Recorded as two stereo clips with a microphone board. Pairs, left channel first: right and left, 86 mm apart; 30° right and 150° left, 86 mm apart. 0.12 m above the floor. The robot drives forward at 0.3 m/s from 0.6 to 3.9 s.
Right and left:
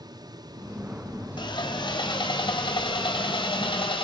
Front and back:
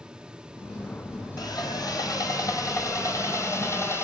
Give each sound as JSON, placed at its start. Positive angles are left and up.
{"t": 1.4, "sound": "sawing", "azimuth_deg": -70, "distance_m": 2.5}